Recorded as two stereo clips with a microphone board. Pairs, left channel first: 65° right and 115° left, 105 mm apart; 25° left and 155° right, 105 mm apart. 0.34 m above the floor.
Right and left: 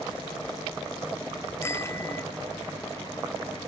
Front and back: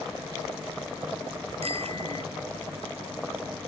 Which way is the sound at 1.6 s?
135° right.